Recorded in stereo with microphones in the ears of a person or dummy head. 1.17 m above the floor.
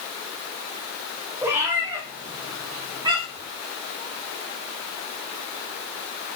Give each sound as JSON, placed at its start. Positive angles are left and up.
{"t": 1.4, "sound": "a cat meowing", "side_deg": -10, "distance_m": 5.5}